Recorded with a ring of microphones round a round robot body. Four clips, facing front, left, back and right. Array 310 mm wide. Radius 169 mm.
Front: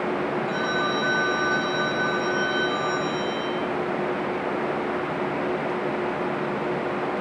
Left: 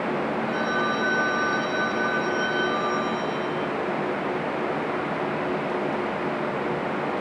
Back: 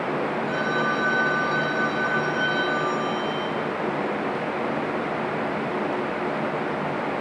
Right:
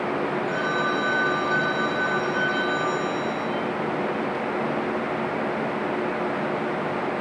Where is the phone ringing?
105° right, 5 m.